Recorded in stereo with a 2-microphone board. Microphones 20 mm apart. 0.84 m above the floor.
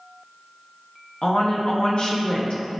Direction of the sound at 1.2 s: 60° left (ahead or behind).